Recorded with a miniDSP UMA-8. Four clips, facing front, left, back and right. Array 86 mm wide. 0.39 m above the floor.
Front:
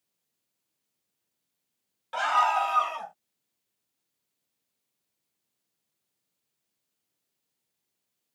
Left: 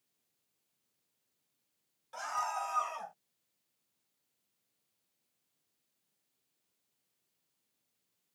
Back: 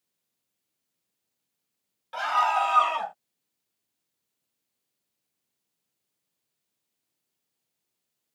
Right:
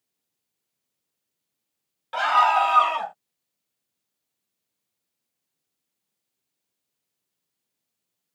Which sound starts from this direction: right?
A scream, at 2.1 s.